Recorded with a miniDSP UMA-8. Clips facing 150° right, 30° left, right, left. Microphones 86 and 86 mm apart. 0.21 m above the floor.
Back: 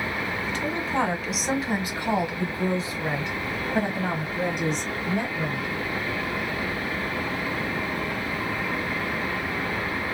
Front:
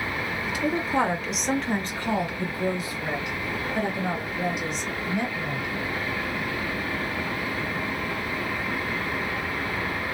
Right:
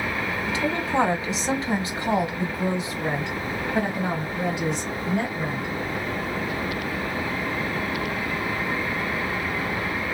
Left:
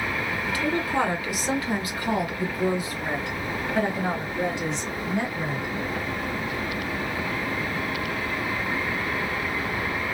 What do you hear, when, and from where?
0.5 s a woman speaking: 40° right, 1.5 m; by 5.7 s 165° right, 2.5 m